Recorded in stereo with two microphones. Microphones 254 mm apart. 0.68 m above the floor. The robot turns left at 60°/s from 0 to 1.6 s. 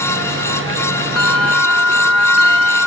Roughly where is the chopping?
I don't hear chopping.